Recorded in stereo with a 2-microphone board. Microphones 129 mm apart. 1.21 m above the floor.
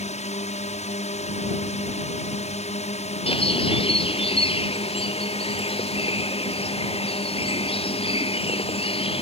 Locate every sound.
0.0 s a drone: 60° left (ahead or behind); by 9.2 s 55° left (ahead or behind)
3.3 s a bird: 45° left (ahead or behind)